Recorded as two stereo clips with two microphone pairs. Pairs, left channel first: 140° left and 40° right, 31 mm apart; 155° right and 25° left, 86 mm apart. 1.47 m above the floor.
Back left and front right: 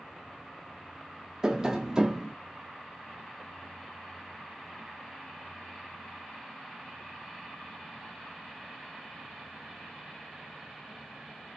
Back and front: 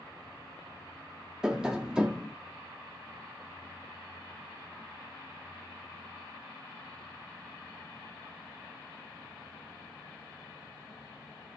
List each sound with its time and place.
1.4 s tapping: 35° right, 0.6 m